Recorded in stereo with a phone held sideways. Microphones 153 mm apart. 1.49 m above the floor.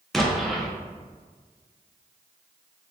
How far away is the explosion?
About 0.5 m.